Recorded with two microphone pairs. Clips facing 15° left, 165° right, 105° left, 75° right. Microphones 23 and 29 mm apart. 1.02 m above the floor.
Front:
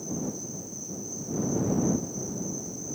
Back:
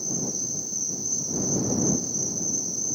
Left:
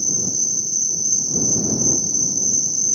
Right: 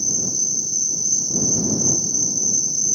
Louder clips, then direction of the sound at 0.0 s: Back 4 dB, left 1 dB; 155° right.